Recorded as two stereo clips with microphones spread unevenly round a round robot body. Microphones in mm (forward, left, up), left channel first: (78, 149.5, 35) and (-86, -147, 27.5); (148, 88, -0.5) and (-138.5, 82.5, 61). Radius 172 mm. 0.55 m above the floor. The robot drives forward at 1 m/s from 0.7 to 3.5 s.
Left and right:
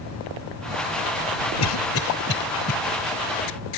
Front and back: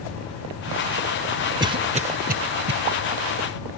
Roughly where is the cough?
Left.